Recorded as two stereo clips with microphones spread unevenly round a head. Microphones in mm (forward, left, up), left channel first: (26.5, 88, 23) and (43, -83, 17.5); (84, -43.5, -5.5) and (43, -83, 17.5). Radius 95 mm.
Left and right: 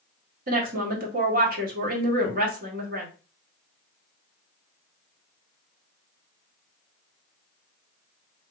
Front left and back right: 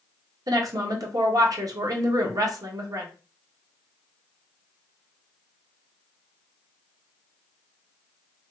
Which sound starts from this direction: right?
A woman speaking, at 0.5 s.